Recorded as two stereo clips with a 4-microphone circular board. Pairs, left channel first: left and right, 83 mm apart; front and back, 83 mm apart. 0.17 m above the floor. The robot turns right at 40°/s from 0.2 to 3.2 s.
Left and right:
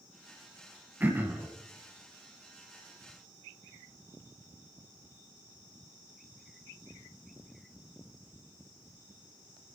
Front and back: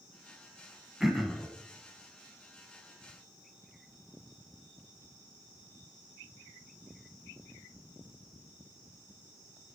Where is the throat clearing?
100° right, 0.9 m; by 1.5 s 80° right, 0.9 m.